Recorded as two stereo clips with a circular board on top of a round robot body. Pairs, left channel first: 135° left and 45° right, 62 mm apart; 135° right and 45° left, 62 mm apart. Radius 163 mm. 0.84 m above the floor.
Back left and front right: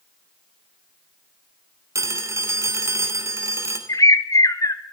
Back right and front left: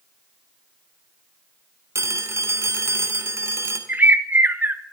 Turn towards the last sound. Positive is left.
turn(degrees=105)